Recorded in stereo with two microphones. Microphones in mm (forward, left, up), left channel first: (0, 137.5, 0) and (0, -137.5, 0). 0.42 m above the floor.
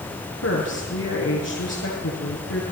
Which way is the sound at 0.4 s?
60° left (ahead or behind).